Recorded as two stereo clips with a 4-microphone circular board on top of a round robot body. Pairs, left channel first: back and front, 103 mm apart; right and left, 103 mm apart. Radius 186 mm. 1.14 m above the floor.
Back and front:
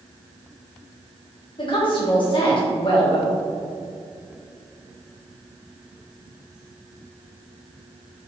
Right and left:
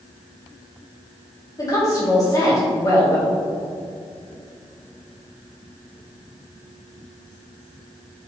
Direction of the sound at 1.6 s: 145° right.